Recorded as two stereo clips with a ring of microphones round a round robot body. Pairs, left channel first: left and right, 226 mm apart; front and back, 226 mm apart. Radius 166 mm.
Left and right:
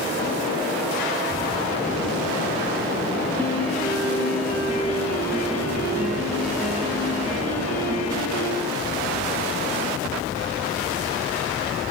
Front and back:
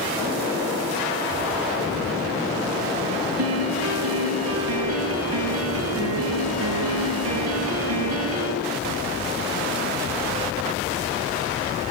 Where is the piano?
175° left, 4 m.